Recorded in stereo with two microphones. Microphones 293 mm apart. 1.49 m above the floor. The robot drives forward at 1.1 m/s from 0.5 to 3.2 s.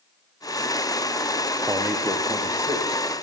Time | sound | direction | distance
1.7 | a man speaking | 10° right (ahead or behind) | 0.7 m